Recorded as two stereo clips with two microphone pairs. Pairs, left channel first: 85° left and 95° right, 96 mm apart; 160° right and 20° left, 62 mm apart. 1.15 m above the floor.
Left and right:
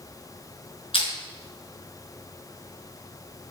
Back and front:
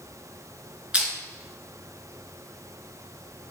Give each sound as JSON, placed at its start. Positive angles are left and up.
{"t": 0.9, "sound": "crushing", "azimuth_deg": 95, "distance_m": 5.5}